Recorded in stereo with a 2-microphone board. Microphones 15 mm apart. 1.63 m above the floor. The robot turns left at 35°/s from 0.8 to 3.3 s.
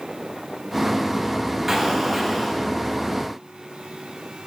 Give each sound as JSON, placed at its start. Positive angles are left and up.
{"t": 1.7, "sound": "an explosion", "azimuth_deg": -170, "distance_m": 1.7}